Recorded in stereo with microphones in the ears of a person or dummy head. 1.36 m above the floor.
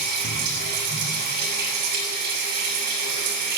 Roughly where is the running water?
Right.